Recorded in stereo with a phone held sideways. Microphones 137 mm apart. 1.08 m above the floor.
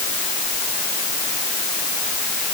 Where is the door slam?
No door slam in this recording.